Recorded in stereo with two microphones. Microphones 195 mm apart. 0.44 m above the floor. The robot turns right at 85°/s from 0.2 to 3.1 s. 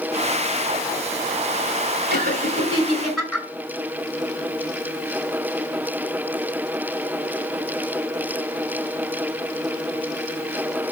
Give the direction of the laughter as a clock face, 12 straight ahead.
3 o'clock.